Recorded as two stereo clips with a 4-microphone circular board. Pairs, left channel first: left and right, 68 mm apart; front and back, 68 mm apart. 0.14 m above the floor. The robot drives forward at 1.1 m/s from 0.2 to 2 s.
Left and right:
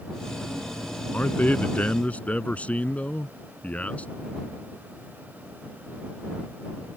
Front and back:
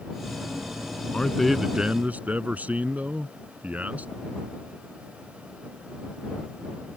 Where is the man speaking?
55° left; by 4.1 s 140° left.